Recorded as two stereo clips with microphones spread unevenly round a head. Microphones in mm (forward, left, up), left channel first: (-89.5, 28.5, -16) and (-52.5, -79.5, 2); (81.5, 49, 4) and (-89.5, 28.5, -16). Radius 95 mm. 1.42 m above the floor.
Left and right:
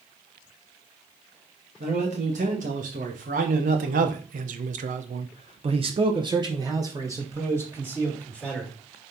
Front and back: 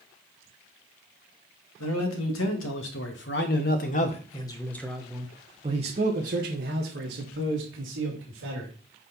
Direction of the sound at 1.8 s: 15° right.